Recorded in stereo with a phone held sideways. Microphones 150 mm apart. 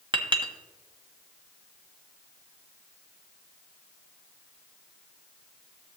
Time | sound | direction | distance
0.1 | a clink | 30° right (ahead or behind) | 1.0 m